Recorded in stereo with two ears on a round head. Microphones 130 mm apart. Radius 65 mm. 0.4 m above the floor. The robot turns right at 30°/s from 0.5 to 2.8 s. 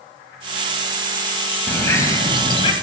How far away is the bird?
About 1.7 m.